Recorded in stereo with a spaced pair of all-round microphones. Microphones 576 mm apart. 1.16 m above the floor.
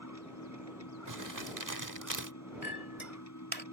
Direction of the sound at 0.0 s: 30° left (ahead or behind).